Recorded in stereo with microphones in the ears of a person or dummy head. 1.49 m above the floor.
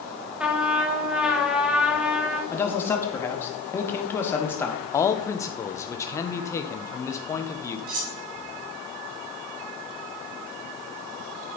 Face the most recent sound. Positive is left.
turn(degrees=-45)  # may be behind; listen again after turning